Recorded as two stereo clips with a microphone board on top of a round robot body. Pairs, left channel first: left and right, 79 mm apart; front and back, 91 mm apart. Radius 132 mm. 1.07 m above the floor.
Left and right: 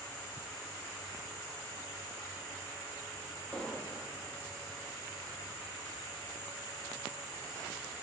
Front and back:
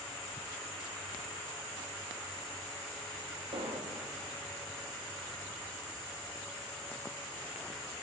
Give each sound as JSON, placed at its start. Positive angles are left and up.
{"t": 3.5, "sound": "an explosion", "azimuth_deg": 165, "distance_m": 3.0}